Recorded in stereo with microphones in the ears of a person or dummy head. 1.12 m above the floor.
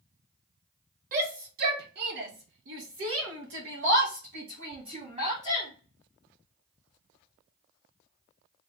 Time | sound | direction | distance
1.1 | a shout | 45° right (ahead or behind) | 1.8 m